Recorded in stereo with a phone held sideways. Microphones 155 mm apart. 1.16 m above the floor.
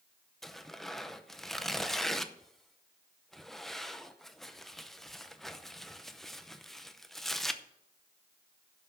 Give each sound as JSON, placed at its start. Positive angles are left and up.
{"t": 0.4, "sound": "tearing paper", "side_deg": 0, "distance_m": 0.7}